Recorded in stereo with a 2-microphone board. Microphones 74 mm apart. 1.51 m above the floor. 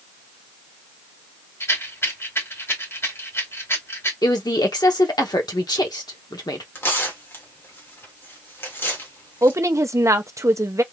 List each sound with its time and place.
1.6 s a rattle: 35° left (ahead or behind), 3 m
4.2 s a woman speaking: 70° left (ahead or behind), 1.1 m
6.8 s tearing paper: 35° left (ahead or behind), 1.9 m
9.4 s a woman speaking: 45° right (ahead or behind), 0.7 m